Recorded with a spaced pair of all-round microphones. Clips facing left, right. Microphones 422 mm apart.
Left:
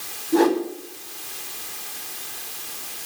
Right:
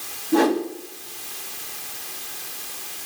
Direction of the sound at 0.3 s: 75° right (ahead or behind).